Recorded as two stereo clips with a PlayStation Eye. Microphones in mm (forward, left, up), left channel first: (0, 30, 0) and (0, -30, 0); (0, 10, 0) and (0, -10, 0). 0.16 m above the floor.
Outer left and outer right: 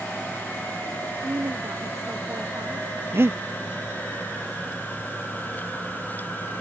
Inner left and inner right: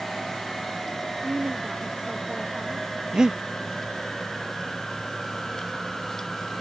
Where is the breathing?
45° right (ahead or behind).